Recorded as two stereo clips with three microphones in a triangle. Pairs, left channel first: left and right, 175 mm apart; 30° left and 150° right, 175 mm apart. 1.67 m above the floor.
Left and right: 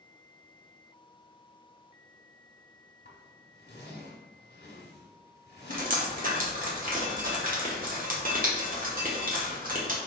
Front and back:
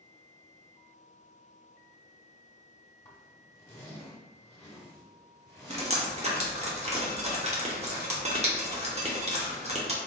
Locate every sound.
3.0 s a zipper: 100° left, 0.9 m
5.7 s dripping: 105° right, 0.9 m